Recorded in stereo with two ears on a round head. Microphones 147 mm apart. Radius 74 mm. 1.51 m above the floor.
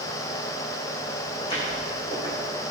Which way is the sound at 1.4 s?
35° left (ahead or behind).